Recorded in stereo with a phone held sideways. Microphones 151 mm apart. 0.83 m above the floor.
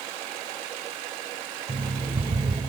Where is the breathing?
No breathing in this recording.